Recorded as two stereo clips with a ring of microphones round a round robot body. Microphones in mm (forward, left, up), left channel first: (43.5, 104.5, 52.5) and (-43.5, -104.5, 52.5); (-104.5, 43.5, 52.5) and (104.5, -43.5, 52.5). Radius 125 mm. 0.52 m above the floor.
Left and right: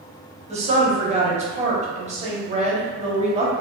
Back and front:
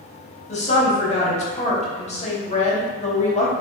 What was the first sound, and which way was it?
A woman speaking, 155° right.